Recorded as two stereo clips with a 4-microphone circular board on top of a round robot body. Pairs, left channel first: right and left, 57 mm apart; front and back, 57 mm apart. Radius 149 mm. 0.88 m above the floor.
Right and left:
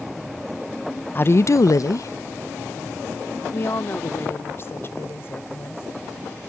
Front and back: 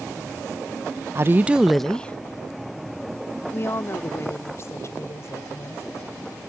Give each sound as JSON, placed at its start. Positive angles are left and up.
{"t": 1.1, "sound": "a woman speaking", "azimuth_deg": -140}